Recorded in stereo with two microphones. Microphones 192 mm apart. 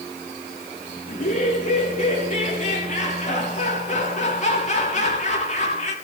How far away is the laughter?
About 5 m.